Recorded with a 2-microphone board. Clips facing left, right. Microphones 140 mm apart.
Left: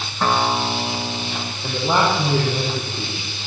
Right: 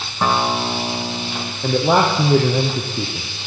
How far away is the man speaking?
About 5.5 m.